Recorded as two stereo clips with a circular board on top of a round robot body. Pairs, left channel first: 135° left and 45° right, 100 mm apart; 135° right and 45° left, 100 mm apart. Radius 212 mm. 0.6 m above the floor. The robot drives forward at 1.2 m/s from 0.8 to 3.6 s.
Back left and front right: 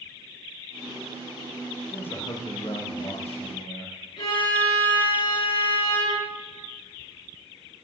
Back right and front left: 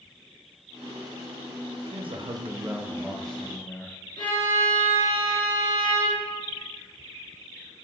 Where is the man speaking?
55° left, 1.2 m; by 3.9 s 150° left, 1.8 m.